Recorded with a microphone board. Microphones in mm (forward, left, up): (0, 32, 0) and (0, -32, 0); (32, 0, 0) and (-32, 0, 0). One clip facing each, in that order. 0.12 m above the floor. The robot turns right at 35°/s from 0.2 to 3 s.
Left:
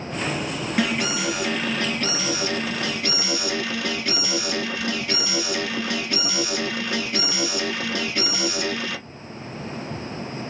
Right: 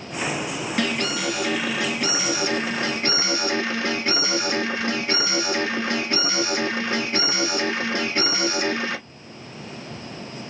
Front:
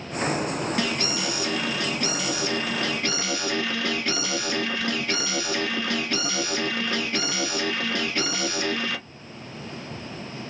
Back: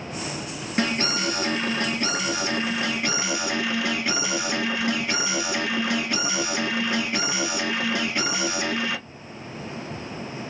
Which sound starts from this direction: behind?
An alarm, at 0.8 s.